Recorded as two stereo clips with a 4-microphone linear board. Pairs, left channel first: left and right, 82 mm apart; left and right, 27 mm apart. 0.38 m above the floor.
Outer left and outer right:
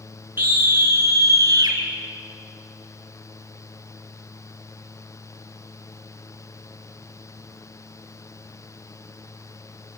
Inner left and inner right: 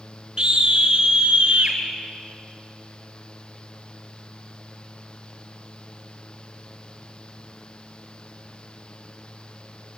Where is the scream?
25° right (ahead or behind), 4.5 m; by 1.8 s 50° right (ahead or behind), 4.5 m.